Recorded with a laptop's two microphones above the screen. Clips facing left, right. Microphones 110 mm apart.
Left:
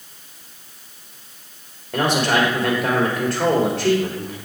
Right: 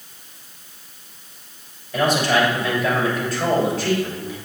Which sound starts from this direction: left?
A man speaking, at 1.9 s.